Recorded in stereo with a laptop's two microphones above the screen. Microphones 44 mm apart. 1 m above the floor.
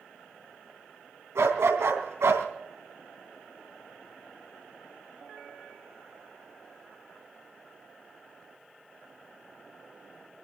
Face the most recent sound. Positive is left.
turn(degrees=-85)